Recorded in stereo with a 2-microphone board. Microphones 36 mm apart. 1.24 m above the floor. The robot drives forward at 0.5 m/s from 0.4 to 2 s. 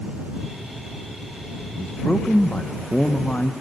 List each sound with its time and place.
1.8 s a man speaking: 40° left (ahead or behind), 0.8 m; by 3.5 s 35° left (ahead or behind), 0.9 m